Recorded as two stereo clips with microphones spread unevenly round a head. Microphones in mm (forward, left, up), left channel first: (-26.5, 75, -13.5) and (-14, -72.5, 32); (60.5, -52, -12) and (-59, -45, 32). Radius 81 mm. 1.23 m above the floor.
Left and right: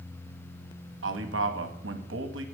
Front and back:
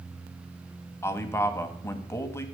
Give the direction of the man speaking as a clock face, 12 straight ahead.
2 o'clock.